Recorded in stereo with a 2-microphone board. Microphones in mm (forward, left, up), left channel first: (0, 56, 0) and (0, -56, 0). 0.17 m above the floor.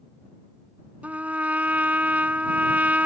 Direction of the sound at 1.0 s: 15° right (ahead or behind).